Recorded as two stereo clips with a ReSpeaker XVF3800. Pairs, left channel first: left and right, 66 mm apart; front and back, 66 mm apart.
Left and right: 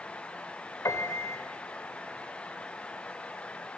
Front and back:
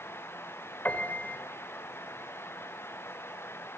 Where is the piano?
60° left, 1.7 m.